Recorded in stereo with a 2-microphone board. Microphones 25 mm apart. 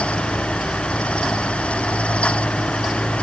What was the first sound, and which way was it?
Only background noise.